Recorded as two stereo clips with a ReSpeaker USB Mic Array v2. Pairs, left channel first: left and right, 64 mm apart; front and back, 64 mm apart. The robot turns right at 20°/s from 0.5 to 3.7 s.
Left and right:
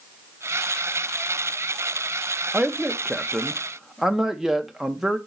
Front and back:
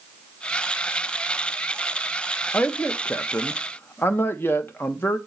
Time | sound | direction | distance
2.5 | a man speaking | 35° right | 0.8 m